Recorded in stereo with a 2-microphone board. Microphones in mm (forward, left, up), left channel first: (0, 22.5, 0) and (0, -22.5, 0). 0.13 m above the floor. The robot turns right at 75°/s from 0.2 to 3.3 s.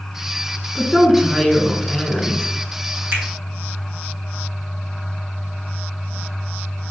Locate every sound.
0.8 s a woman speaking: 10° right (ahead or behind), 1.3 m; by 2.5 s 20° left (ahead or behind), 1.3 m
3.1 s a finger snap: 50° right (ahead or behind), 3.5 m; by 3.2 s 40° right (ahead or behind), 3.5 m